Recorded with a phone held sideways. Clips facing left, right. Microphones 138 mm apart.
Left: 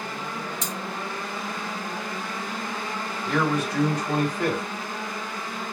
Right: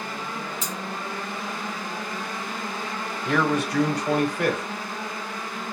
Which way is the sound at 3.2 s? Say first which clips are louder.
Right 1 dB; 70° right (ahead or behind).